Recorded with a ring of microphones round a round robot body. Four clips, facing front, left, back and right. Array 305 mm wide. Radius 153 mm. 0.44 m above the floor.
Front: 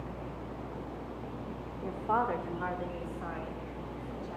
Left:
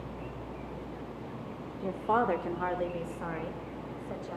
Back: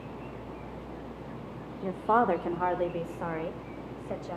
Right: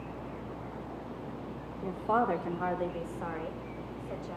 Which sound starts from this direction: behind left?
A woman speaking, at 1.8 s.